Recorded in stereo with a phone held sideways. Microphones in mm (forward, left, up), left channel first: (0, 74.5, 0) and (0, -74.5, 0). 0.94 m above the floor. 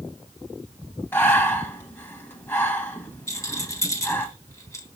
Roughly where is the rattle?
Left.